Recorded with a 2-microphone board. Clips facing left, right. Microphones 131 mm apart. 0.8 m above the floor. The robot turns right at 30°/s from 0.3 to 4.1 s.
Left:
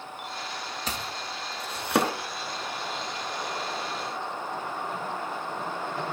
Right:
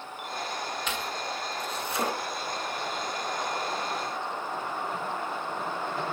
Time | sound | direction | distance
0.9 | chopping | 40° left (ahead or behind) | 2.5 m